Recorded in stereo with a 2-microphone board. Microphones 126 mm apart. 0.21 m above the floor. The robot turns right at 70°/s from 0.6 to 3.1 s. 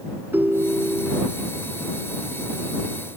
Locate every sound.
0.3 s a ringtone: 20° right; by 1.3 s 35° left